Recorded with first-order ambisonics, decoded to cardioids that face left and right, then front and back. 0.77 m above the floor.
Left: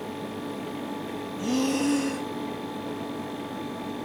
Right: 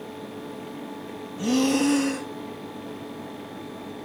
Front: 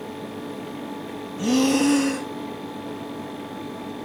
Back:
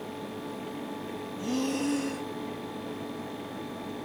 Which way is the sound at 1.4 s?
25° right.